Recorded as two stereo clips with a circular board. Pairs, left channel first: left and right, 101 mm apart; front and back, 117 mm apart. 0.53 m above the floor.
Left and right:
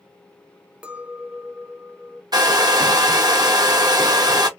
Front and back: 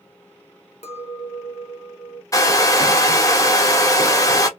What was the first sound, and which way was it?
A clink, 10° right.